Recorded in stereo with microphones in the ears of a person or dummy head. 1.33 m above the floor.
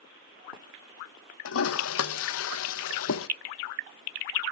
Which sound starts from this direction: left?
A toilet flushing, at 1.4 s.